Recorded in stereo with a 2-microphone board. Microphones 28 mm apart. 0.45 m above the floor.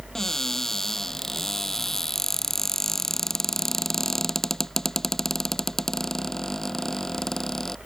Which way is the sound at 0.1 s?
15° left (ahead or behind).